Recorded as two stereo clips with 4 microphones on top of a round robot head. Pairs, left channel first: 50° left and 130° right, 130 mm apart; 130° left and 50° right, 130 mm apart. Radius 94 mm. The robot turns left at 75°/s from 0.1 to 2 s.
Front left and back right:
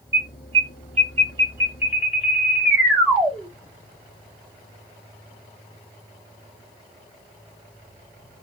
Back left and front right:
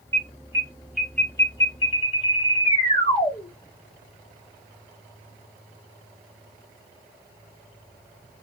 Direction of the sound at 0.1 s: 75° right.